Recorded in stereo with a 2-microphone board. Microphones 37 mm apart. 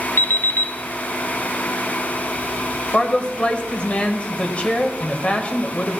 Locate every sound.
0.2 s an alarm clock: 70° left (ahead or behind), 0.8 m
2.9 s a man speaking: 35° left (ahead or behind), 1.4 m